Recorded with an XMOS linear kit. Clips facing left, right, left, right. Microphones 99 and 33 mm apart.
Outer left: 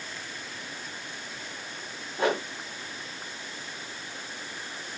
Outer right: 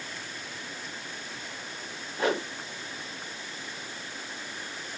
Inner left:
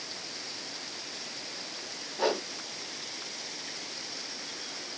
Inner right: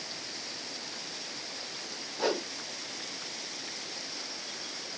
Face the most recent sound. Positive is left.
turn(degrees=25)  # may be behind; listen again after turning